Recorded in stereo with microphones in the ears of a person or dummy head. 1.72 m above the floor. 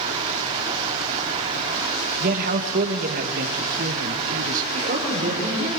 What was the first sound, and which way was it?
Running water, 30° right (ahead or behind).